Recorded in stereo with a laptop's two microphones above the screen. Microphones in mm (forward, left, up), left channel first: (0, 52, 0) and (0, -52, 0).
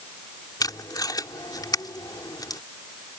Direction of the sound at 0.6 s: 40° left (ahead or behind).